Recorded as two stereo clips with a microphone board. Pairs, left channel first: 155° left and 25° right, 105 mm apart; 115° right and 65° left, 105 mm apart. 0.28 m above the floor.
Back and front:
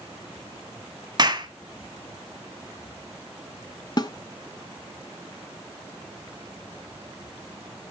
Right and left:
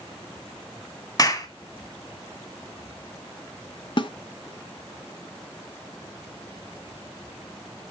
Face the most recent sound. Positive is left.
turn(degrees=-150)